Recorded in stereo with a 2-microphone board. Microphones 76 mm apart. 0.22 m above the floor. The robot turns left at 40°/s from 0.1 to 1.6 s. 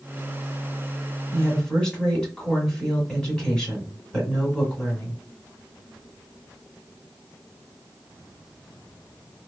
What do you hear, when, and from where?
1.3 s a woman speaking: 15° left (ahead or behind), 1.4 m; by 5.2 s 10° left (ahead or behind), 1.4 m